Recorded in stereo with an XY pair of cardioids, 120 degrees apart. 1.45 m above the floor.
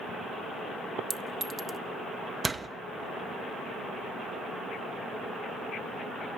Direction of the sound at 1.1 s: 30° right.